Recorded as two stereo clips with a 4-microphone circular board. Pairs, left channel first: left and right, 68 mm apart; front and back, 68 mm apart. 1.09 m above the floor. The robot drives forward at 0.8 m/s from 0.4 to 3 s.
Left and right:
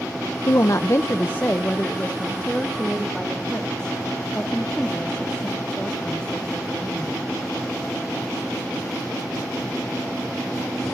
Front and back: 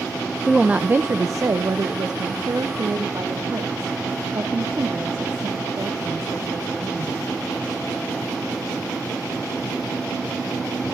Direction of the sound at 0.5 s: 95° left.